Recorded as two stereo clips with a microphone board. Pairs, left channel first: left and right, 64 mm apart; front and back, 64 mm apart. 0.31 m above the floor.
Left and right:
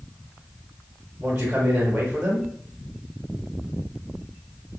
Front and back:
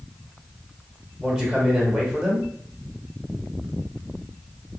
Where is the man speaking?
100° right, 1.1 m.